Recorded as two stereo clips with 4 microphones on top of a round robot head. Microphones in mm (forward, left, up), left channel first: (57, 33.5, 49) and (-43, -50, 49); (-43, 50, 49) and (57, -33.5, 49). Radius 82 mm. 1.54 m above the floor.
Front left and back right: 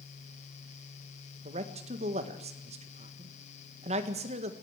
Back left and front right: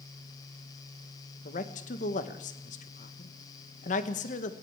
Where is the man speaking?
175° left, 1.7 m.